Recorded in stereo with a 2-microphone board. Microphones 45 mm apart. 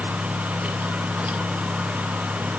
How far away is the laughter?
I don't hear laughter.